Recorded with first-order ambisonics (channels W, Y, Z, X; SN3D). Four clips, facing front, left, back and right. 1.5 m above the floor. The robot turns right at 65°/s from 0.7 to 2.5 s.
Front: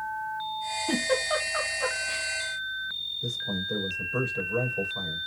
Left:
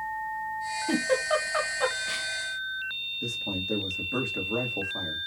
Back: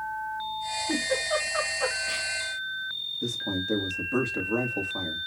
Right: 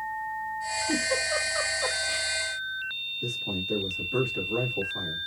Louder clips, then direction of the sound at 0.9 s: Left 2 dB, front 1 dB; 40° left.